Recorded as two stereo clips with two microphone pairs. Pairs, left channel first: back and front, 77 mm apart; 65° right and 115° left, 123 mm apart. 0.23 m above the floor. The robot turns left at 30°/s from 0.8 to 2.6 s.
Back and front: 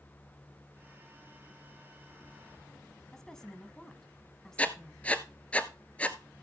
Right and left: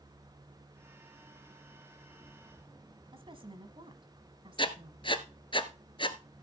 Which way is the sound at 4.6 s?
110° right.